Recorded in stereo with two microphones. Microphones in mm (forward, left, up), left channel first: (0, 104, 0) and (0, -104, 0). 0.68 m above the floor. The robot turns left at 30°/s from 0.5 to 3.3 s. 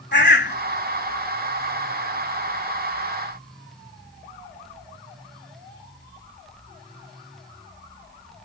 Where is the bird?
55° left (ahead or behind).